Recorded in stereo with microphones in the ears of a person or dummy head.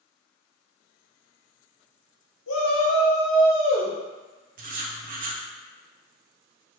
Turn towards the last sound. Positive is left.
turn(degrees=-40)  # may be behind; listen again after turning